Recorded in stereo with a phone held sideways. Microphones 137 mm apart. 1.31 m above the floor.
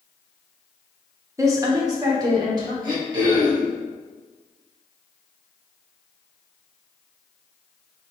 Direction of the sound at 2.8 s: 30° right (ahead or behind).